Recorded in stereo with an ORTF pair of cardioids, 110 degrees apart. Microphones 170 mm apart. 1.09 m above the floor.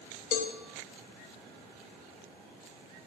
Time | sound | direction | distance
0.3 | a cowbell | 55° left | 0.9 m